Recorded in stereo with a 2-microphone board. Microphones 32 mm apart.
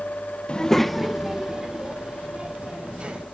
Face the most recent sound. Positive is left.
turn(degrees=-30)  # may be behind; listen again after turning